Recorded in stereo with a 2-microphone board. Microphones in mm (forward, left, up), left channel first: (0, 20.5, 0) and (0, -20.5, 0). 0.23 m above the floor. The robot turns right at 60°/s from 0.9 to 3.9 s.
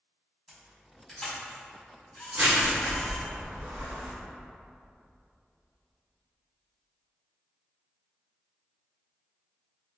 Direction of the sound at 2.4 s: 30° right (ahead or behind).